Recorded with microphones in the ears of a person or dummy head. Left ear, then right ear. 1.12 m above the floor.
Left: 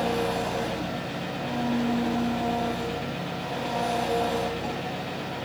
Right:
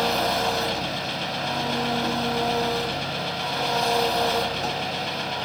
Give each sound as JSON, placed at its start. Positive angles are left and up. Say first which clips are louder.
{"t": 0.0, "sound": "an engine running", "louder": "right 4 dB", "side_deg": -45, "distance_m": 3.0}